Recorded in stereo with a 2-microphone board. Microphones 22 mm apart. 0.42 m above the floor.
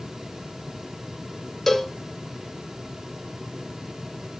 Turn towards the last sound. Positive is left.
turn(degrees=15)  # may be behind; listen again after turning